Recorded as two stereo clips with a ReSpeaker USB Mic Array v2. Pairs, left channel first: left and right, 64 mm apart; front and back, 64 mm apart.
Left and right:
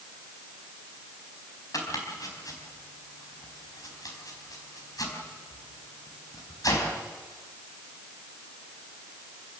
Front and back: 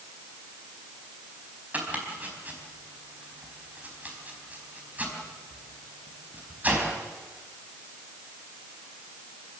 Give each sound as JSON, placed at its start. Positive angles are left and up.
{"t": 1.7, "sound": "chopping", "azimuth_deg": 115, "distance_m": 4.0}